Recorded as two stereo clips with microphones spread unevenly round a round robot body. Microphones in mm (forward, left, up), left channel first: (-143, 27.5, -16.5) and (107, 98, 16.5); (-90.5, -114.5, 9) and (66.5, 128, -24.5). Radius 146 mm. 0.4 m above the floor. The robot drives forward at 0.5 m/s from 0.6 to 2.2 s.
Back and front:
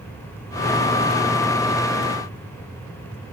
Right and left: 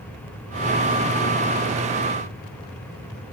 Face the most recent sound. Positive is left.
No sound to turn to.